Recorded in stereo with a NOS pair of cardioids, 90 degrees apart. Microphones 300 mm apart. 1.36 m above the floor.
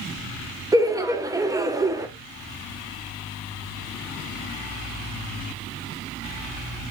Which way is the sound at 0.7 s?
10° right.